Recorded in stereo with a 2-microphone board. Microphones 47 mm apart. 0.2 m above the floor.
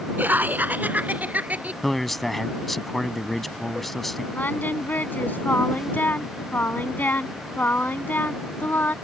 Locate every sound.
0.2 s laughter: 45° right (ahead or behind); by 1.7 s 35° right (ahead or behind)
1.8 s a man speaking: 5° left (ahead or behind)
4.3 s singing: 45° left (ahead or behind)